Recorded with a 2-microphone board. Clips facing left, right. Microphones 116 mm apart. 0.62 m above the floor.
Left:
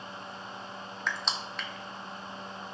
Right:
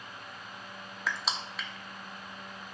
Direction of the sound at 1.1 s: 5° right (ahead or behind).